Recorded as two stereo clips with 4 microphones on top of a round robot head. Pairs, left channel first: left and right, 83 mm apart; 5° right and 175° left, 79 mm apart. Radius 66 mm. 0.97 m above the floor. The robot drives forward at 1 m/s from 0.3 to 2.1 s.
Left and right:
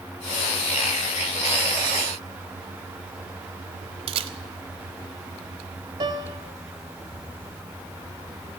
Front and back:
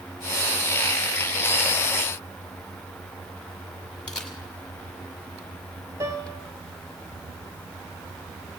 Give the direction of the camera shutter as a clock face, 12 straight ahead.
3 o'clock.